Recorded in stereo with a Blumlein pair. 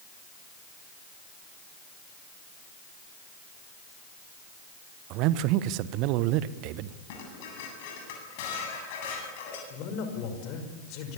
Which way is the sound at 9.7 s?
40° left.